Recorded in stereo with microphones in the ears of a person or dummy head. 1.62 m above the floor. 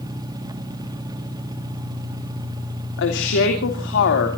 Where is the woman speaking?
75° left (ahead or behind), 2.5 m.